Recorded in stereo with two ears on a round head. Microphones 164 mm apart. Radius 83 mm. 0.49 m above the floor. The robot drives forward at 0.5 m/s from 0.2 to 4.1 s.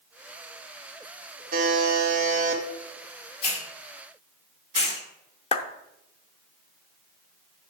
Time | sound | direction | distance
1.5 | a buzzer | 50° right (ahead or behind) | 2 m
3.4 | a hiss | 40° left (ahead or behind) | 1.6 m
5.5 | a clap | 35° left (ahead or behind) | 0.7 m